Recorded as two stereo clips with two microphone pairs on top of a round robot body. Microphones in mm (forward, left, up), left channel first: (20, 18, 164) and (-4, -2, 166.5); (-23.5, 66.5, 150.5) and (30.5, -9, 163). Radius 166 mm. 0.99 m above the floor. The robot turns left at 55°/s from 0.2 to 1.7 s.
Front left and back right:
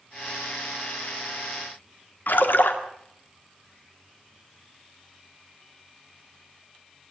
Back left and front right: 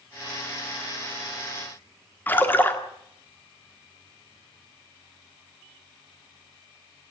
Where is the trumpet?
No trumpet in this recording.